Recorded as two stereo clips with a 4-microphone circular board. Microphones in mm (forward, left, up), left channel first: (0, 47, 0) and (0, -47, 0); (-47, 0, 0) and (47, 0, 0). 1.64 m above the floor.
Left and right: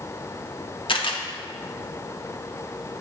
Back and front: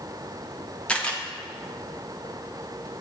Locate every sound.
0.9 s a camera shutter: 105° left, 0.7 m